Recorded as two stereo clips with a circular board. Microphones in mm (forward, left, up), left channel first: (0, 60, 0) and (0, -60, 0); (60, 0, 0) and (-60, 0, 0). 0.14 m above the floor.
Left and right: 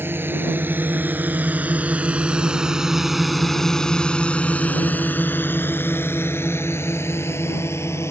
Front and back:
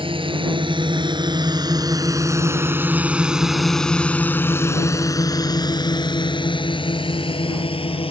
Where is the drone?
160° right; by 8.1 s 25° left.